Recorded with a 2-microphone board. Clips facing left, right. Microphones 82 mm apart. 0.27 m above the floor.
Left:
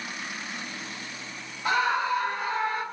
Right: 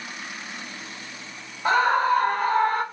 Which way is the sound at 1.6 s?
35° right (ahead or behind).